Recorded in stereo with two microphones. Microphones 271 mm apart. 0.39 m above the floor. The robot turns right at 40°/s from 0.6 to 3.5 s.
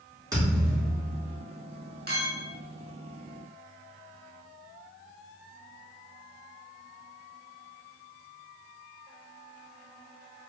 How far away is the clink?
About 0.9 m.